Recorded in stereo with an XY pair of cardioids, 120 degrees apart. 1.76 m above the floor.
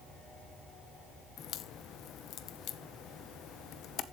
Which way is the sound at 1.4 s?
65° left.